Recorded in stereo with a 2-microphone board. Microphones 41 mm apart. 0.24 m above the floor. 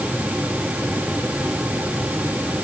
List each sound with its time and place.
Only background noise.